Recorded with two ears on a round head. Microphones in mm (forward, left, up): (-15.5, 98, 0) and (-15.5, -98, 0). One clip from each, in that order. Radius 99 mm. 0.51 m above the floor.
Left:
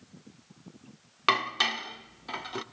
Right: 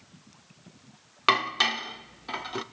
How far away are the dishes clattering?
About 0.7 m.